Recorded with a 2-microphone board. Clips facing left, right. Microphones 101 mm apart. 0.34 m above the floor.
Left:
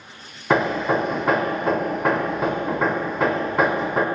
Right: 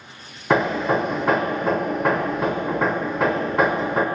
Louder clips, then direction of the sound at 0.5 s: Even; centre (ahead or behind).